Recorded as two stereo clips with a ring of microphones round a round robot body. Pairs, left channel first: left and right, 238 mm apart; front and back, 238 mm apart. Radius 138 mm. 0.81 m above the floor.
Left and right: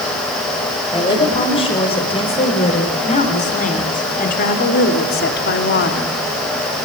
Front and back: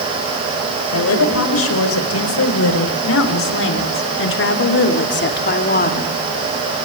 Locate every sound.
0.9 s a woman speaking: 20° left, 4.5 m; by 6.1 s 50° left, 2 m